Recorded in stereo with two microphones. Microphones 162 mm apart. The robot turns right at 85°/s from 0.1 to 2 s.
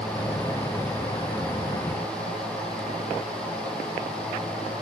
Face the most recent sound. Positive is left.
No sound to turn to.